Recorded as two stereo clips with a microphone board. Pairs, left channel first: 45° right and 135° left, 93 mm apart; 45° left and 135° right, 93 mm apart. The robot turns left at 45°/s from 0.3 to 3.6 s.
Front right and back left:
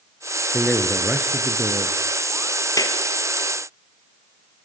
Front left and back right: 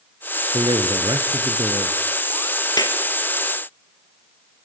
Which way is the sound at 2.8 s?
5° left.